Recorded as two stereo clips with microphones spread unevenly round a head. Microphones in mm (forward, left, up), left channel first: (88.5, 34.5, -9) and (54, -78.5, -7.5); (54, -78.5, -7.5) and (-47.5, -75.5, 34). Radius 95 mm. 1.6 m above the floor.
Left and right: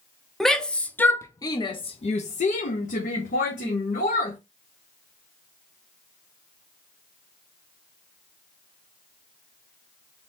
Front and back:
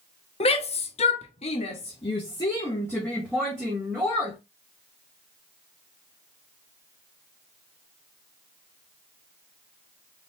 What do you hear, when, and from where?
0.4 s a shout: 15° right, 1.1 m; by 4.4 s 100° left, 1.5 m